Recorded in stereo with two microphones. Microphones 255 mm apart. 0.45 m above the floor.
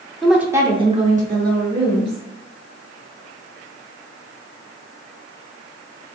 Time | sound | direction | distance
0.2 | a woman speaking | centre (ahead or behind) | 0.7 m